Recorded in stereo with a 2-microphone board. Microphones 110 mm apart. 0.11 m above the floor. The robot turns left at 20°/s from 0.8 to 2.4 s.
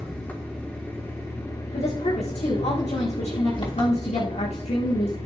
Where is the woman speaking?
75° left (ahead or behind), 5.5 m.